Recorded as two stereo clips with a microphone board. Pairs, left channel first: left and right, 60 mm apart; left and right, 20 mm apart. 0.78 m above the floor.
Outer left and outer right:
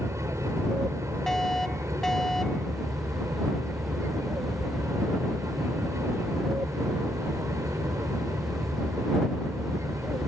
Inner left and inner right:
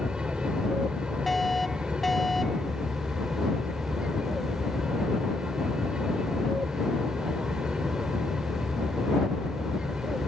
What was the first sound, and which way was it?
An aircraft, 50° right (ahead or behind).